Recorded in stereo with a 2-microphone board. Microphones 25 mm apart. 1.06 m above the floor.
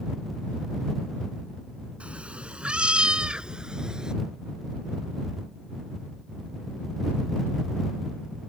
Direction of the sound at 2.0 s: 60° right (ahead or behind).